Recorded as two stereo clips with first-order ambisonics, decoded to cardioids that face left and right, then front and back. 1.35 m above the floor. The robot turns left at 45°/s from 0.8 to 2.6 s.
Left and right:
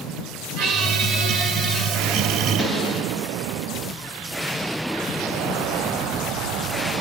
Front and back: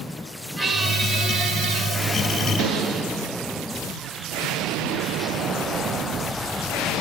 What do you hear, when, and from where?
0.6 s a squeak: 100° right, 1.1 m; by 3.4 s 175° left, 1.1 m